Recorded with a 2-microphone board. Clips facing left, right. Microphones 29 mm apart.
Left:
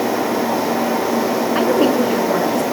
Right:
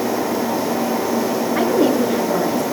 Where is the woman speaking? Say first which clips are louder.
Left 1 dB; 70° left (ahead or behind), 8 m.